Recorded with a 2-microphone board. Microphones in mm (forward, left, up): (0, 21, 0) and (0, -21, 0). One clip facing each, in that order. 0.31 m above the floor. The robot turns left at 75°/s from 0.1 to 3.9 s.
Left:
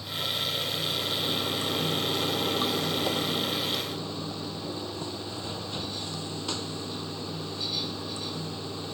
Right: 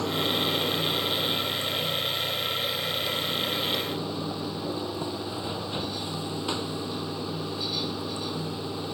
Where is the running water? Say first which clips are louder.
Right 5 dB; 90° right; by 8.9 s 15° right.